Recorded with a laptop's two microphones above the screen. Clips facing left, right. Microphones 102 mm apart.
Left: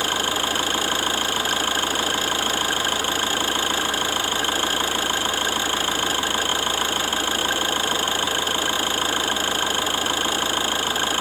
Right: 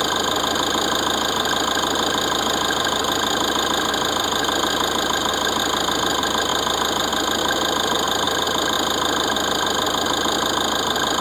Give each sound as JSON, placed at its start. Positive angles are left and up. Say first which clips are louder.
{"t": 0.0, "sound": "an engine running", "louder": "right 4 dB", "side_deg": -15}